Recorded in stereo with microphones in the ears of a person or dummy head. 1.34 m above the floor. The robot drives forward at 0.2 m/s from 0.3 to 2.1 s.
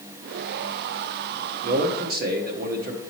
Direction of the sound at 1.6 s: 50° right (ahead or behind).